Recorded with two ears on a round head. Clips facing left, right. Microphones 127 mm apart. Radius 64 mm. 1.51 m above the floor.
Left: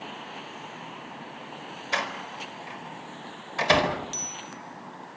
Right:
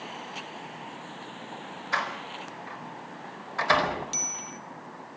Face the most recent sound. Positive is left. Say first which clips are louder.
# even
turn(degrees=-15)  # may be behind; listen again after turning